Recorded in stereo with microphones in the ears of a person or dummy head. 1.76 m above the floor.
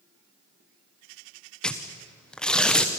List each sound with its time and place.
1.6 s tearing paper: 5° left (ahead or behind), 1.2 m